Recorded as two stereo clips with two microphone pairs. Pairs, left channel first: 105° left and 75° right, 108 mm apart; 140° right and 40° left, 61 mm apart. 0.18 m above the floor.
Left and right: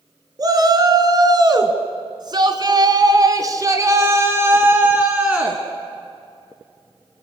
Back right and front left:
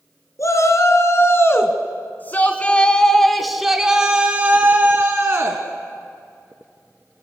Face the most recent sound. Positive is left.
turn(degrees=0)